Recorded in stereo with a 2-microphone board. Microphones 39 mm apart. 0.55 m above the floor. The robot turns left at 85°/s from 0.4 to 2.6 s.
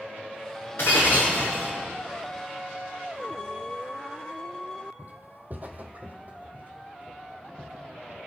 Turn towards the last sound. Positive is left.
turn(degrees=-35)  # may be behind; listen again after turning